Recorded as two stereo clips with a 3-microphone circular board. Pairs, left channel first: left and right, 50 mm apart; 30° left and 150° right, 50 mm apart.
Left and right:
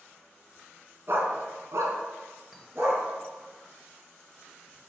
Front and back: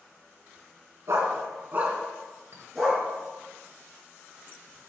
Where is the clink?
170° right, 1.3 m.